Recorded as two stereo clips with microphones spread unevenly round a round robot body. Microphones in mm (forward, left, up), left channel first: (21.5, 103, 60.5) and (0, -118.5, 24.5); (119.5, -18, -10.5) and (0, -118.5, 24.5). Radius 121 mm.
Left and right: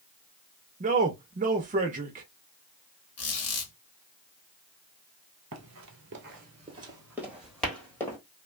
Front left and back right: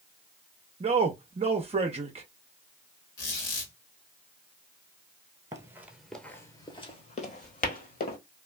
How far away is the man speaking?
About 0.6 m.